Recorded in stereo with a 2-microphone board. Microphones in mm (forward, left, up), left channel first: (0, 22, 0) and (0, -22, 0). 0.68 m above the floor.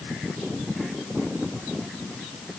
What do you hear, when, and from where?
Only background noise.